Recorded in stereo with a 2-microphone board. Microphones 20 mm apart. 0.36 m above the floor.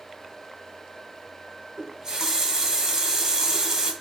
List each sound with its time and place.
1.8 s a running tap: 35° right (ahead or behind), 1.3 m